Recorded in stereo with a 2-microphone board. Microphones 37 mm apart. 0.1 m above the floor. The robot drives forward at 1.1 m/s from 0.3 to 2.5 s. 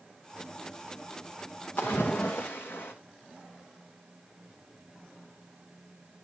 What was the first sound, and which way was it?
A splash, 60° left (ahead or behind).